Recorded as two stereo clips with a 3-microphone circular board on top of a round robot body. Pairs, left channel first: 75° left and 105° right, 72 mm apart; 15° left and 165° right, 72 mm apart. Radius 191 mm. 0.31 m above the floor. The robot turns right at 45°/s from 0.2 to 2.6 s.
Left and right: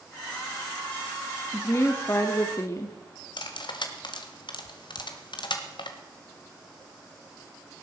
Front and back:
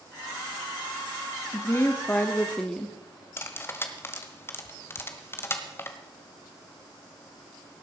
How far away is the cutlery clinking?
About 1.5 m.